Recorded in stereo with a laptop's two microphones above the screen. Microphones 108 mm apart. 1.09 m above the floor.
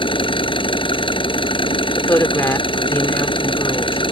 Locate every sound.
0.0 s an engine running: 55° left (ahead or behind)
2.0 s a woman speaking: 20° left (ahead or behind)